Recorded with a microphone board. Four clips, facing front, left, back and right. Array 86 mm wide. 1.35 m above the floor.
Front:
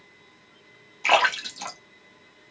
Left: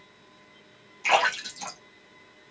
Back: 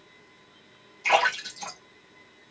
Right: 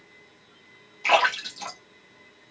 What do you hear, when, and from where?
1.0 s a splash: 10° right, 1.3 m